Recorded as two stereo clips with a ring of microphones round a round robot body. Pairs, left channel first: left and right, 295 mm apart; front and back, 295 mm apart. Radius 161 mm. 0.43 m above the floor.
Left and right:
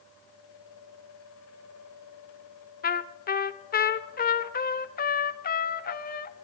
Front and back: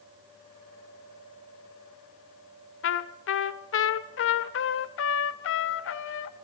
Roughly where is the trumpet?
Ahead left.